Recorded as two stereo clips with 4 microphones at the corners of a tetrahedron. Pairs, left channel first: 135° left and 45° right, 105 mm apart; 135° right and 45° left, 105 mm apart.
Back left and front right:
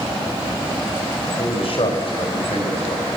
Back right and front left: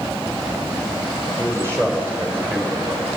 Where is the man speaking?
105° left, 4 m; by 3.1 s 120° left, 4.5 m.